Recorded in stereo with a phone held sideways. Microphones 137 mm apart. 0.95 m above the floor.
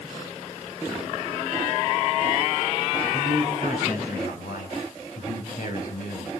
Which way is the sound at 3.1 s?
80° left.